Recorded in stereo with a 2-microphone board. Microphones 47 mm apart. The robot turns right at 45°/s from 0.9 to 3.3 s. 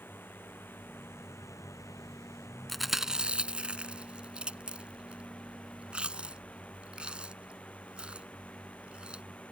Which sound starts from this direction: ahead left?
A drone, at 0.0 s.